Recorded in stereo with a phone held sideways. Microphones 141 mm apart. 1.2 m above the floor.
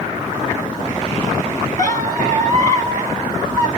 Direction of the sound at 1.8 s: 60° right (ahead or behind).